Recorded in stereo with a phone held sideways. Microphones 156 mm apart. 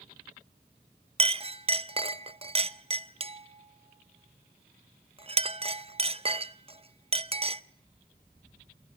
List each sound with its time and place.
1.2 s a clink: 40° right (ahead or behind), 0.6 m